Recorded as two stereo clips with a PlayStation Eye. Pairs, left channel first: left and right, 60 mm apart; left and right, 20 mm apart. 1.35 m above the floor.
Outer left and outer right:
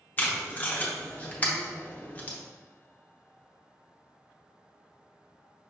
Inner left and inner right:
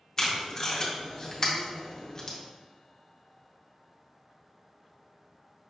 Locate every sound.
0.2 s tape being pulled: 25° left (ahead or behind), 0.7 m